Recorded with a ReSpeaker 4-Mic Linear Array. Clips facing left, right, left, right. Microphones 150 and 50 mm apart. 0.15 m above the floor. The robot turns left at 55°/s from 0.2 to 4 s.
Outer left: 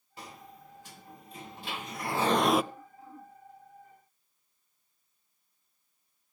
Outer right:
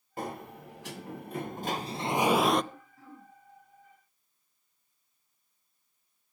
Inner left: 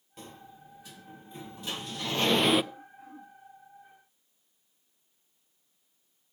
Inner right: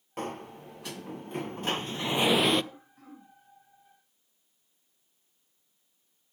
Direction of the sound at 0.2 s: 55° right.